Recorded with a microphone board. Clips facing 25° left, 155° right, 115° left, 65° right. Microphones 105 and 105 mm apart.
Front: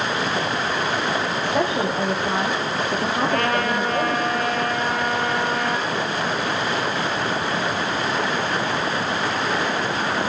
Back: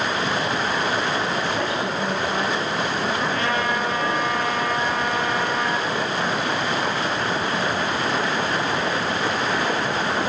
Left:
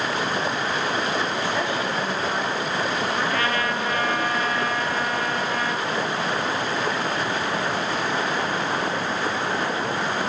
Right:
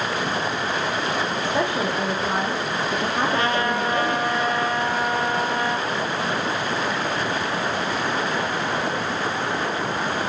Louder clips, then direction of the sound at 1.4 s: Front 3 dB, right 2 dB; 10° right.